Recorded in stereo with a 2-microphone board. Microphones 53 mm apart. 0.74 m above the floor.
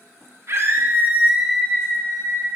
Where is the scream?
60° right (ahead or behind), 1.7 m; by 2.5 s 50° left (ahead or behind), 1.7 m.